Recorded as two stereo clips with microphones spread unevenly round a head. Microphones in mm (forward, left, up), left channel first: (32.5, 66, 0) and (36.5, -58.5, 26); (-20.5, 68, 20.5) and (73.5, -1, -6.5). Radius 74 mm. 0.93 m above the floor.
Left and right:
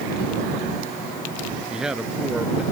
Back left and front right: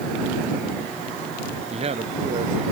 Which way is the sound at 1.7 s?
5° right.